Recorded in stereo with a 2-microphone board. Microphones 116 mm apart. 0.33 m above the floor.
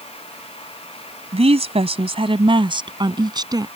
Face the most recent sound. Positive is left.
turn(degrees=-35)  # may be behind; listen again after turning